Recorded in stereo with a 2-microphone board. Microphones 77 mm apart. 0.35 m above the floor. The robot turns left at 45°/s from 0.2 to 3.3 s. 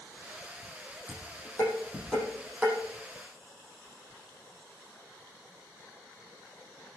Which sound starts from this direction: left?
Dishes clattering, at 1.1 s.